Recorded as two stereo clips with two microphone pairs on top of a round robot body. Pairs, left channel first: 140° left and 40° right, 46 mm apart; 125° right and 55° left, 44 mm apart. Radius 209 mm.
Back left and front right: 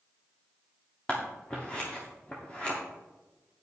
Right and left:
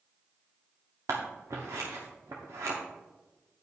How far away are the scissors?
About 0.7 m.